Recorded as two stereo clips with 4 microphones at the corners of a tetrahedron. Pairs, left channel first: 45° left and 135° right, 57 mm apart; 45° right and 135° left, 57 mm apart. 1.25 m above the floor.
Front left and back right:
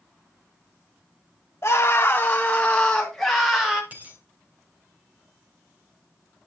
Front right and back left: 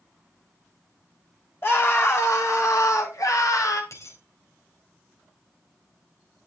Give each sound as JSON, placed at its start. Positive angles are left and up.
{"t": 1.6, "sound": "a scream", "azimuth_deg": 0, "distance_m": 2.0}
{"t": 3.9, "sound": "a dropped coin", "azimuth_deg": -75, "distance_m": 3.0}